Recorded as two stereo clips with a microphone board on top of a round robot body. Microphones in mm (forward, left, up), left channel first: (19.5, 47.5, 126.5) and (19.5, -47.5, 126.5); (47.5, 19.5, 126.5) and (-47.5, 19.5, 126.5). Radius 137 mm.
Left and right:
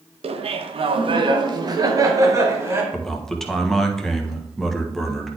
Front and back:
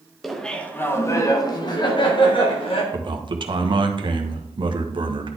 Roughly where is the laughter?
Right.